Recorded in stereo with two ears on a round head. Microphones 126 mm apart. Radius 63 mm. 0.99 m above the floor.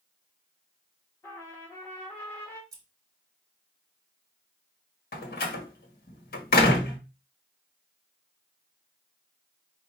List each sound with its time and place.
1.2 s a trumpet: 15° left (ahead or behind), 1.5 m
2.7 s scissors: 25° right (ahead or behind), 1.1 m
5.1 s a door slam: 75° left (ahead or behind), 1.3 m